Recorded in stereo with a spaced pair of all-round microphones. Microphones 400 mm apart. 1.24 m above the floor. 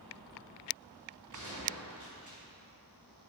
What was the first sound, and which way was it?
A gunshot, 45° right (ahead or behind).